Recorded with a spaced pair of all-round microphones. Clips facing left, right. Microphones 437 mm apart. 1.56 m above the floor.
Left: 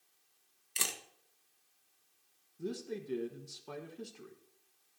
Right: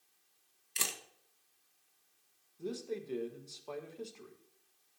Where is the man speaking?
30° left (ahead or behind), 1.4 m.